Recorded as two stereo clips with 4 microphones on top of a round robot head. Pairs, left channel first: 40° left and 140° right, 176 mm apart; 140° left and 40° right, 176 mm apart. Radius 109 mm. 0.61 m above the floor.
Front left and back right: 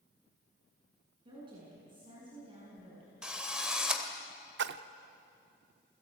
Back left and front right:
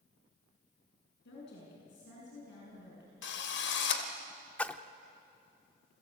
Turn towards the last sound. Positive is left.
turn(degrees=-140)